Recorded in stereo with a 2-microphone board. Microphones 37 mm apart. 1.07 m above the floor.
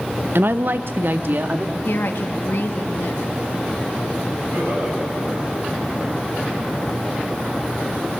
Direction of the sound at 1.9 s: 70° left (ahead or behind).